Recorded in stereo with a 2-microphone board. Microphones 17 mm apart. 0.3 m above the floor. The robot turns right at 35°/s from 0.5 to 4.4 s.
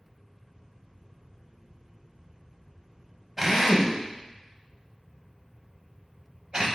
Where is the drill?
20° right (ahead or behind), 0.8 m; by 6.7 s 50° right (ahead or behind), 0.8 m.